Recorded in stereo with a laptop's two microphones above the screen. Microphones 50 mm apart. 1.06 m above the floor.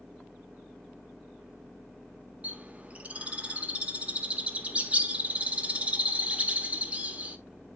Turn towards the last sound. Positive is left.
turn(degrees=-25)  # may be behind; listen again after turning